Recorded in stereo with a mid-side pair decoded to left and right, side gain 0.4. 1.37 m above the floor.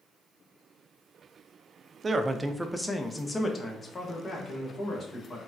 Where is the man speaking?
35° right, 0.5 m; by 5.4 s 50° left, 1.6 m.